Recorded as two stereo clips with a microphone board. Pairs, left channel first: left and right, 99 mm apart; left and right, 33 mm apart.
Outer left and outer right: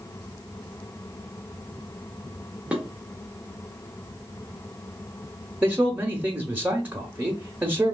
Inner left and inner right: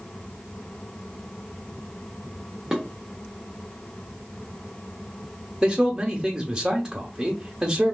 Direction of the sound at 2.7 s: 10° right (ahead or behind).